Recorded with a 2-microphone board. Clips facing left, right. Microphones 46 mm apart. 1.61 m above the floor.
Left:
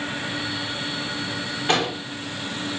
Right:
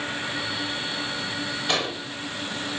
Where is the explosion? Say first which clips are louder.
Left 5 dB; 35° left (ahead or behind), 2.5 m.